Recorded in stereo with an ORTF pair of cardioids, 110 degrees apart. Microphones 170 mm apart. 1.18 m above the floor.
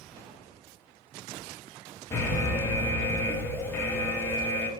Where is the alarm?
15° left, 0.8 m.